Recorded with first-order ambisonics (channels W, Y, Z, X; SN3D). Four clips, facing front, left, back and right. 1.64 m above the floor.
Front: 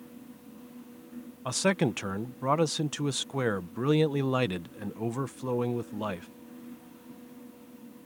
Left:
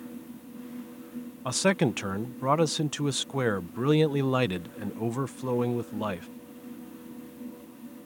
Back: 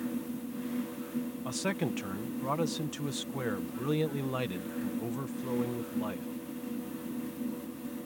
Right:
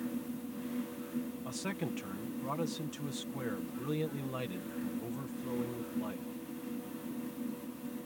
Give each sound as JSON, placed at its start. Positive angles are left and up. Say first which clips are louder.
{"t": 1.4, "sound": "a man speaking", "louder": "left 13 dB, front 9 dB", "azimuth_deg": 60}